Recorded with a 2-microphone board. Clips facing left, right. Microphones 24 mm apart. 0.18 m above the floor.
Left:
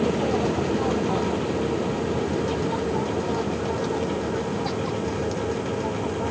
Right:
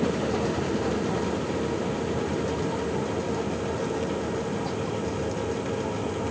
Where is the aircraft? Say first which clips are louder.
Left 3 dB; 60° left (ahead or behind); by 6.3 s 35° left (ahead or behind).